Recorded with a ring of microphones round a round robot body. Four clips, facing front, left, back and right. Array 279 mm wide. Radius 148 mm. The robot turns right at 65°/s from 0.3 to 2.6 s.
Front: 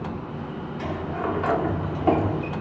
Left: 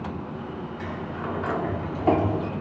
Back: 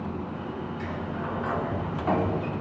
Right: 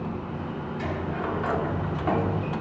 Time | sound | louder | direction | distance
0.8 | a sliding door | right 4 dB, front 4 dB | 40° right | 2 m